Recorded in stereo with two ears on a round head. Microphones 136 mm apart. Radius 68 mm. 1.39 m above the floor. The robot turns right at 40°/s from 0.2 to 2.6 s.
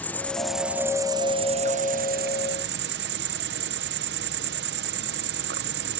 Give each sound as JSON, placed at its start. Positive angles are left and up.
{"t": 0.0, "sound": "an insect", "azimuth_deg": 170}